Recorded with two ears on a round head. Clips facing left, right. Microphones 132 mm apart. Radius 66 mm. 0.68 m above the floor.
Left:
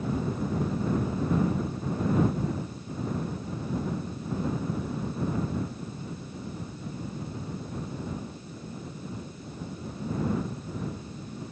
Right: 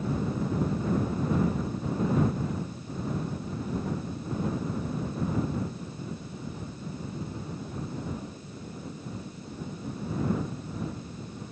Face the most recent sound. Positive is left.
No sound to turn to.